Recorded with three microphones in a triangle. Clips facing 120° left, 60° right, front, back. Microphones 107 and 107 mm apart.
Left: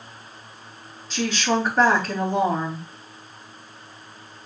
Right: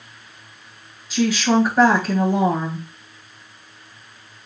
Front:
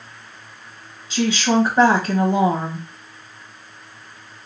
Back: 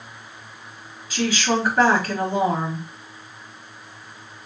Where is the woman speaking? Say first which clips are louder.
Right 5 dB, front 3 dB; 15° left, 1.5 m.